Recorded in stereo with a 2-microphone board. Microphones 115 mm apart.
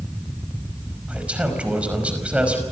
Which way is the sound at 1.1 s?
10° right (ahead or behind).